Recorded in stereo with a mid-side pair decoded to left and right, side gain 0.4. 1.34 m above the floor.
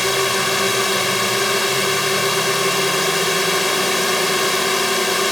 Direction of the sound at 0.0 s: 10° left.